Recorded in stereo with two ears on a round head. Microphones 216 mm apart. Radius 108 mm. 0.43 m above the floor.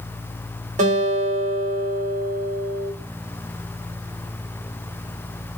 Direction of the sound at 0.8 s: 30° right (ahead or behind).